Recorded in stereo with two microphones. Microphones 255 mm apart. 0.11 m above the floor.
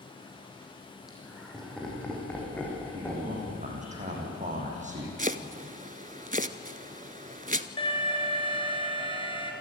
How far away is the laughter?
About 5 m.